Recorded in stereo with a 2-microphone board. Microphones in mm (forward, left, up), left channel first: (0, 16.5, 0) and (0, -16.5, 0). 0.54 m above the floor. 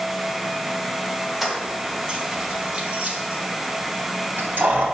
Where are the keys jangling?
10° right (ahead or behind), 1.9 m; by 4.9 s 70° right (ahead or behind), 2.5 m.